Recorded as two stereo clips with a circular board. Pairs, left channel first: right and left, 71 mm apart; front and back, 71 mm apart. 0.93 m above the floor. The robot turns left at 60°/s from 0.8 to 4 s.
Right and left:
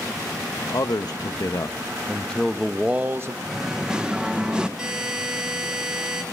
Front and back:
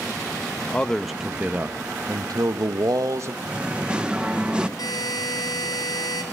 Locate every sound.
0.7 s a man speaking: 75° right, 0.7 m; by 3.4 s 130° left, 0.7 m
3.5 s singing: 175° left, 0.9 m; by 4.7 s 140° left, 0.9 m
4.8 s a buzzer: 10° left, 3 m